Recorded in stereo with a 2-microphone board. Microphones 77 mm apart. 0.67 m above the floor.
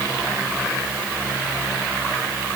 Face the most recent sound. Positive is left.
No sound to turn to.